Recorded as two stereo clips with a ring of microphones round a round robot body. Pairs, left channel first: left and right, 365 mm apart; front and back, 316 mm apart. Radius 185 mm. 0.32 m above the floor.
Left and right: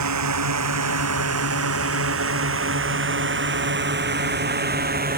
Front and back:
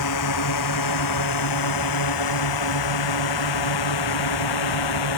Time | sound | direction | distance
0.0 | a drone | 45° right | ?